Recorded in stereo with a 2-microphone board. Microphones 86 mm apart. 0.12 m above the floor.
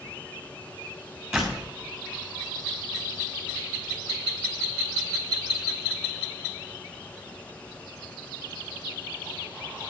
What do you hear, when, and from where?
1.3 s a door slam: 10° right (ahead or behind), 6.5 m